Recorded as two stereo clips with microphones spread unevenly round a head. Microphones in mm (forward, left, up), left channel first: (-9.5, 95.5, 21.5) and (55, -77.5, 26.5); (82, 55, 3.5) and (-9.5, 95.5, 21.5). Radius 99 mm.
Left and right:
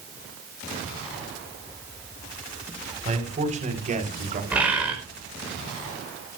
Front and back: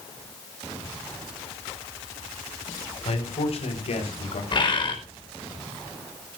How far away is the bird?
About 5 m.